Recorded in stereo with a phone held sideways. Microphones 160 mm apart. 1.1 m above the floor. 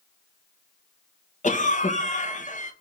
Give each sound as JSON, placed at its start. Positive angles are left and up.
{"t": 1.4, "sound": "a cough", "side_deg": 55, "distance_m": 1.3}